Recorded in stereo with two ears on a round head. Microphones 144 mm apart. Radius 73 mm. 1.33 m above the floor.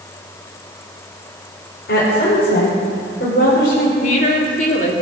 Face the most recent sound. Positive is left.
turn(degrees=55)  # may be behind; listen again after turning